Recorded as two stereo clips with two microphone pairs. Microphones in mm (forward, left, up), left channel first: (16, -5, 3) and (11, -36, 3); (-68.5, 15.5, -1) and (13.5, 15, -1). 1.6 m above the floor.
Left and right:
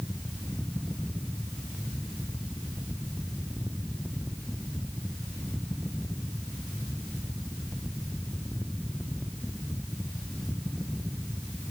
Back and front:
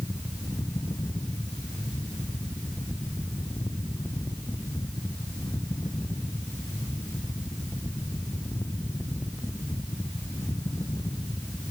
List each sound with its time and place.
Only background noise.